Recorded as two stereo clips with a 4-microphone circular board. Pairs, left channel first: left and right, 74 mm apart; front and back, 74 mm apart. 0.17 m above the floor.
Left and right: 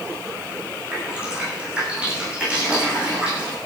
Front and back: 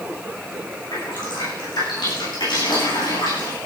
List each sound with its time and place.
0.9 s dripping: 15° right, 8.5 m